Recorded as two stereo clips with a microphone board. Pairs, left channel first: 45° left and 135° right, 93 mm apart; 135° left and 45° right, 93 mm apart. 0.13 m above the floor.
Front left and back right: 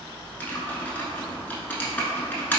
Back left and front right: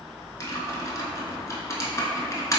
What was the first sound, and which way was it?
Typing on a keyboard, 105° left.